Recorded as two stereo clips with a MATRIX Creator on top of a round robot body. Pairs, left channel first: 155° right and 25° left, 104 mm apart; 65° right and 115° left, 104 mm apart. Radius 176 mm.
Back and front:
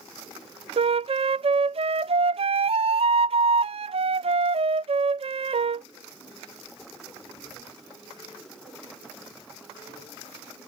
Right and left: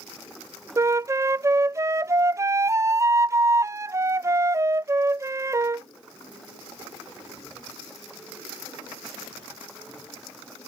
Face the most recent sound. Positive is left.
turn(degrees=50)